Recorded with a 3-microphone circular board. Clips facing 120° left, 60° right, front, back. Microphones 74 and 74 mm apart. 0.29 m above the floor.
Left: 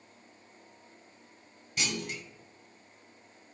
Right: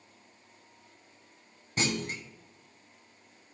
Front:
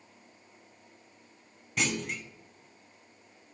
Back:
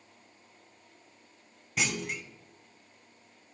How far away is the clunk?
About 0.8 m.